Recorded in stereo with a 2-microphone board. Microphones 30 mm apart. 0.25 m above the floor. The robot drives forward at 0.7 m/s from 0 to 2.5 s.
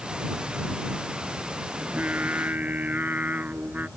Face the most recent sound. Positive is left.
turn(degrees=-70)  # may be behind; listen again after turning